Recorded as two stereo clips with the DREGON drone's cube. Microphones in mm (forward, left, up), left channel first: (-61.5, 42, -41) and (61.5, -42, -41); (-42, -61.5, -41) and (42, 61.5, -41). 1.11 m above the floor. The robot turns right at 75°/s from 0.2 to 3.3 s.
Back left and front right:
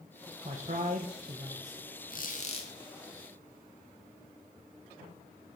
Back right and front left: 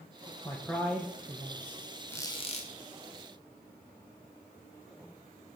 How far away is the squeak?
About 1.4 m.